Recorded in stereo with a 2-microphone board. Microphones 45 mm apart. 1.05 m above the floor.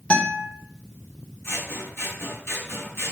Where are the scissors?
65° left (ahead or behind), 4 m.